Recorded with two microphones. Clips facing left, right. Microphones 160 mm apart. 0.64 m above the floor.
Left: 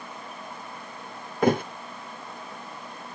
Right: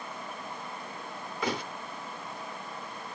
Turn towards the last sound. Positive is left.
turn(degrees=50)  # may be behind; listen again after turning